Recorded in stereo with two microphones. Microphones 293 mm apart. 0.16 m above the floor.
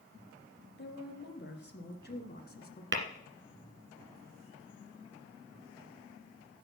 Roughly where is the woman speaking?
Left.